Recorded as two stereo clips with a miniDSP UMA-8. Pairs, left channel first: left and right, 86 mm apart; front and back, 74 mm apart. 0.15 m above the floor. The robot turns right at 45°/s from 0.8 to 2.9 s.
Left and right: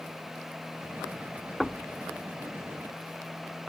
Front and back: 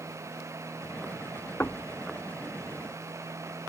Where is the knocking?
5° left; by 1.8 s 15° left.